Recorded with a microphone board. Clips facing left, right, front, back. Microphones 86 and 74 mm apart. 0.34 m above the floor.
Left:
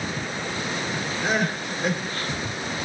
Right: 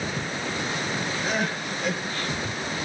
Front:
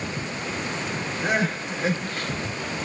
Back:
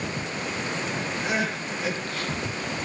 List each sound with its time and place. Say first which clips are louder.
1.2 s crying: left 5 dB, front 5 dB; 50° left, 5 m